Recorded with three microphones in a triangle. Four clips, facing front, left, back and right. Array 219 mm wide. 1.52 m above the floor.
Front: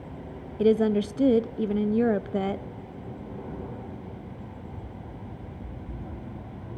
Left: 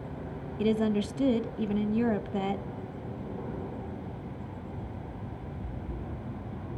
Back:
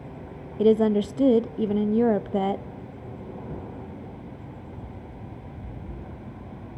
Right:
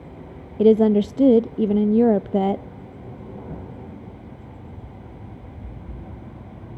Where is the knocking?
105° right, 10 m.